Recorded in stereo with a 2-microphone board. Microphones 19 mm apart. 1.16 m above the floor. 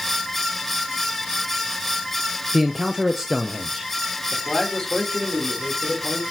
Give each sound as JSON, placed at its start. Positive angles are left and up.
{"t": 2.5, "sound": "a man speaking", "side_deg": -20, "distance_m": 0.7}
{"t": 4.3, "sound": "a man speaking", "side_deg": 30, "distance_m": 2.5}